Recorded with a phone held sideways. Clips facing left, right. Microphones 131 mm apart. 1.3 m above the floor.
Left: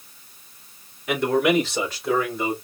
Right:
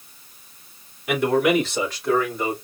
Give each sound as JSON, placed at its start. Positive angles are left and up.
{"t": 1.1, "sound": "a man speaking", "side_deg": -5, "distance_m": 3.0}